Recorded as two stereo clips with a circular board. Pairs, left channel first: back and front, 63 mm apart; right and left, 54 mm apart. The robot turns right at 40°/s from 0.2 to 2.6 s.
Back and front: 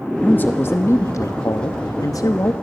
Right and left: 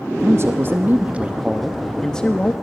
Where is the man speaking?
115° left, 0.8 m; by 2.5 s 150° right, 0.8 m.